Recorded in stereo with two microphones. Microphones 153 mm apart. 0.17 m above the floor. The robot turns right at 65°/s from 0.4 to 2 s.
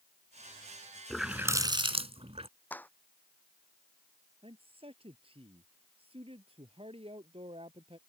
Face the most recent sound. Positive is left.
turn(degrees=-35)  # may be behind; listen again after turning